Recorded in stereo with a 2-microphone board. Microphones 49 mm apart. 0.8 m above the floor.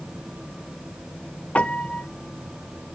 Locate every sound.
1.6 s a piano: 30° left (ahead or behind), 0.5 m